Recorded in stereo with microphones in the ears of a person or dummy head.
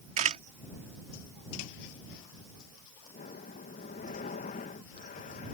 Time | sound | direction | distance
0.2 | a camera shutter | 40° right (ahead or behind) | ?
3.1 | breathing | 45° left (ahead or behind) | ?